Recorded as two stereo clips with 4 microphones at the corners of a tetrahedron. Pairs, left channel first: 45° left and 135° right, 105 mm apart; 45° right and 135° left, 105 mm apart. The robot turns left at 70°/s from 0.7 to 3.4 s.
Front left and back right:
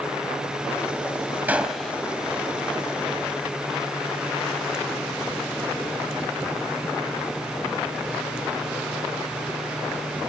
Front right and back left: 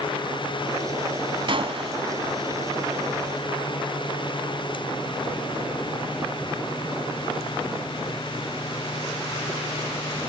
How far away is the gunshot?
About 1.1 m.